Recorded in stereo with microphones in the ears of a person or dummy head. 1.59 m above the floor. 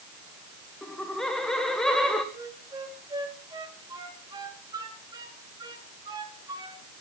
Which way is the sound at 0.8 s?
5° left (ahead or behind).